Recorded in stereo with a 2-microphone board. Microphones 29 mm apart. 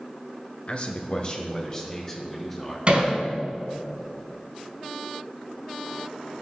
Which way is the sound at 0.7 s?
45° left (ahead or behind).